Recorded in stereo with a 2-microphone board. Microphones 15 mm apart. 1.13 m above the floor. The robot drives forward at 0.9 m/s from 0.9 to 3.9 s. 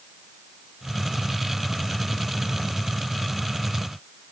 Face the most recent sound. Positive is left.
No sound to turn to.